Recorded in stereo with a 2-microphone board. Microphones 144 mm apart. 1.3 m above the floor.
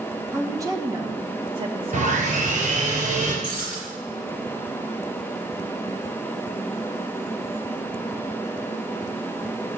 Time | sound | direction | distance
0.3 | a woman speaking | 20° right (ahead or behind) | 1.3 m
1.9 | sawing | 65° right (ahead or behind) | 4 m
3.4 | breaking glass | 75° right (ahead or behind) | 6.5 m